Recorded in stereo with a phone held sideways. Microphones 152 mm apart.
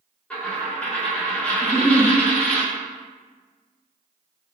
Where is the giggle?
10° left (ahead or behind), 0.7 m.